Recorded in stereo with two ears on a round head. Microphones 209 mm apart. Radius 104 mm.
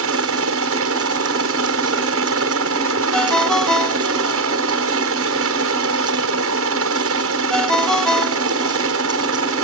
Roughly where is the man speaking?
I don't hear a man speaking.